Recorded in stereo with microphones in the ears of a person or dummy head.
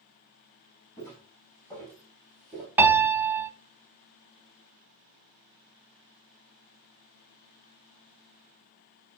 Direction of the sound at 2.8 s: 10° right (ahead or behind).